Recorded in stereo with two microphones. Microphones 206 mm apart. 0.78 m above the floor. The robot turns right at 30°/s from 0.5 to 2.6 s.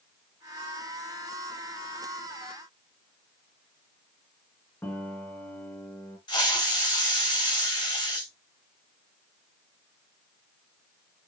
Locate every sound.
4.8 s a piano: 10° left (ahead or behind), 3 m
6.3 s a hiss: 20° left (ahead or behind), 3.5 m